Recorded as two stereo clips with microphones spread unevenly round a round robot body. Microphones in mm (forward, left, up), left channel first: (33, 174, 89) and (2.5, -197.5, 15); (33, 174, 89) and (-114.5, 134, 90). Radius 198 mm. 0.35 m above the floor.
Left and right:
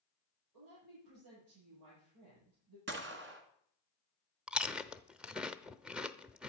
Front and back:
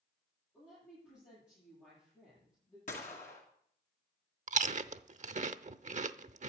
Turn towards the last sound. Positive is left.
turn(degrees=-170)